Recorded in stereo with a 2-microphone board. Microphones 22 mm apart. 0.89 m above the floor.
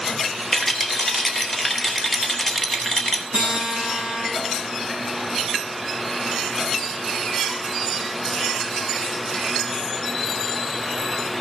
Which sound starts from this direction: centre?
A rattle, at 0.5 s.